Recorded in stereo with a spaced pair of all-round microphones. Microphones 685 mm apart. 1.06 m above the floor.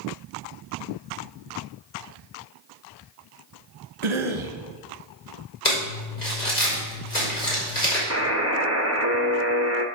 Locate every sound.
4.0 s a cough: 45° right (ahead or behind), 1.0 m
5.7 s crumpling: 80° left, 5 m
8.1 s a buzzer: 20° right (ahead or behind), 1.2 m